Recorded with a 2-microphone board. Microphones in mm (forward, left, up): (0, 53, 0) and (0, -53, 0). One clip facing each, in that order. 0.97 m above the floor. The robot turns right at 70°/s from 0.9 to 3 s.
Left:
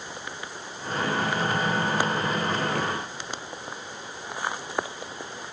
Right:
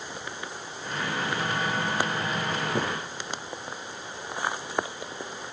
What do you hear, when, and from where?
2.8 s footsteps: 20° right (ahead or behind), 1.1 m; by 2.9 s 10° right (ahead or behind), 1.1 m